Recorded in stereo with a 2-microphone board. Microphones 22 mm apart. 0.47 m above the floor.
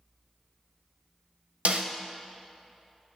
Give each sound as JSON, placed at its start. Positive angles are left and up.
{"t": 1.6, "sound": "a snare drum", "side_deg": -75, "distance_m": 0.8}